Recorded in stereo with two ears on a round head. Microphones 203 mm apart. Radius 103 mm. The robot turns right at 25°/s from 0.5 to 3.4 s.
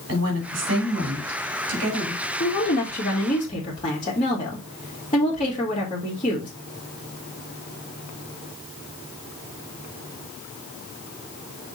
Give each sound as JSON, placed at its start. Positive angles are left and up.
{"t": 0.1, "sound": "a woman speaking", "azimuth_deg": -120, "distance_m": 3.5}
{"t": 2.4, "sound": "a woman speaking", "side_deg": 45, "distance_m": 1.8}